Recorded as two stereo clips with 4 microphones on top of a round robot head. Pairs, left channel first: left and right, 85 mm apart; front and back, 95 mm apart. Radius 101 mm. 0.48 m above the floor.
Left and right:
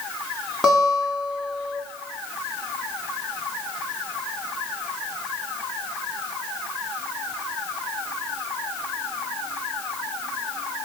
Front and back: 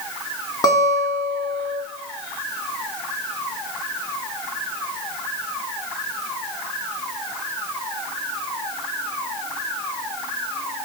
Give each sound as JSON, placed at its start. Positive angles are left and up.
{"t": 0.6, "sound": "a guitar", "azimuth_deg": -15, "distance_m": 1.4}